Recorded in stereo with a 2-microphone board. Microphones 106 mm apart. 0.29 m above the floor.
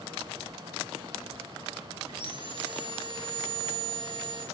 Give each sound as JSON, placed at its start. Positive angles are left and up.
{"t": 2.1, "sound": "sawing", "side_deg": -45, "distance_m": 5.5}